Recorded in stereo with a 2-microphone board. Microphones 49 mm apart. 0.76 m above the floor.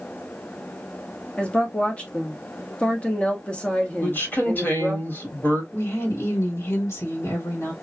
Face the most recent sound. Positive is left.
turn(degrees=70)  # may be behind; listen again after turning